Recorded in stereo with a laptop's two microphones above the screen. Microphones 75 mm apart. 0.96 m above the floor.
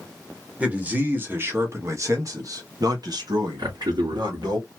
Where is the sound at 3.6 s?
75° right (ahead or behind), 2.5 m.